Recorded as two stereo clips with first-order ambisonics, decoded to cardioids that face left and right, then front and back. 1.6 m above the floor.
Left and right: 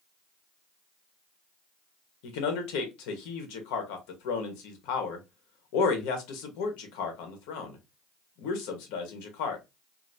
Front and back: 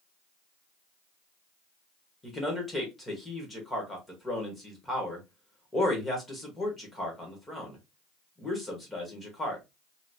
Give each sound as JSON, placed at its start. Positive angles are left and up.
{"t": 2.2, "sound": "a man speaking", "azimuth_deg": 80, "distance_m": 1.3}